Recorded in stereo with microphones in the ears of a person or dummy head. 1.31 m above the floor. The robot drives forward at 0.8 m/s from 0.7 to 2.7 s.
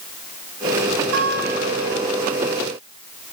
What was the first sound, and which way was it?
A guitar, 65° right (ahead or behind).